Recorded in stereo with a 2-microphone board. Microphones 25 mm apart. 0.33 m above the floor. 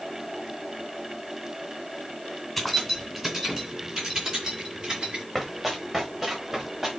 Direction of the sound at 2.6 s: 5° right (ahead or behind).